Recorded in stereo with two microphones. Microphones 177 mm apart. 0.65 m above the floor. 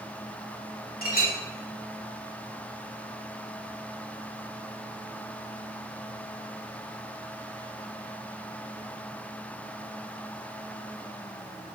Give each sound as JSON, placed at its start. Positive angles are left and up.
{"t": 1.0, "sound": "a clink", "side_deg": 60, "distance_m": 1.2}